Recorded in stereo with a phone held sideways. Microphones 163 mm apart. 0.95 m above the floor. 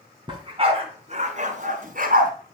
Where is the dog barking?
30° right (ahead or behind), 3.5 m; by 2.3 s 60° right (ahead or behind), 4 m.